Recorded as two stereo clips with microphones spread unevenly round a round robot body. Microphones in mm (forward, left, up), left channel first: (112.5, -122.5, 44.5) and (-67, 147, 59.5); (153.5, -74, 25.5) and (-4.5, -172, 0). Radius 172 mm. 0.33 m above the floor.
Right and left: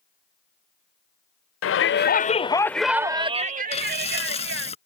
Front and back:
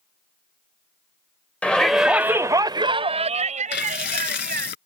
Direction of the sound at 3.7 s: 15° left.